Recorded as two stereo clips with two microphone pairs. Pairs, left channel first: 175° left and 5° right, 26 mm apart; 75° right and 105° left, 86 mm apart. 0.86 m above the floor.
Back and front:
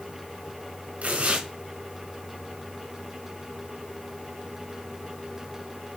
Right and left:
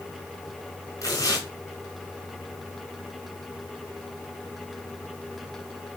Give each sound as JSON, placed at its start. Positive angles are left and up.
{"t": 1.0, "sound": "tearing paper", "azimuth_deg": -25, "distance_m": 4.0}